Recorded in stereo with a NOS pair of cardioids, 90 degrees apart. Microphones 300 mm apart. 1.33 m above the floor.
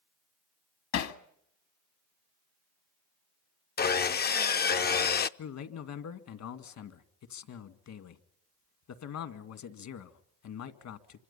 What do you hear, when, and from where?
0.9 s hammering: 60° left, 1.7 m
3.8 s sawing: 35° left, 0.7 m
5.4 s a man speaking: 65° left, 2 m